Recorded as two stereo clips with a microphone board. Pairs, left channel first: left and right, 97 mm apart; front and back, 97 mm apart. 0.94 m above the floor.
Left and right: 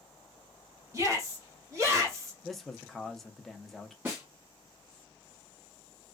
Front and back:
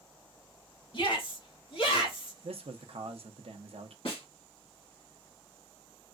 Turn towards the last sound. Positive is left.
turn(degrees=-20)